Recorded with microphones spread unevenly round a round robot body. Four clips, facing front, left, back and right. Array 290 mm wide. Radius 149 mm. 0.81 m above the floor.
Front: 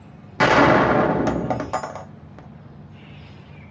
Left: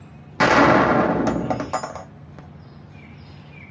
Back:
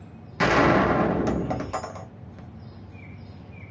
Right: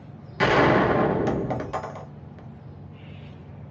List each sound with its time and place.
0.4 s a gunshot: 50° left, 0.7 m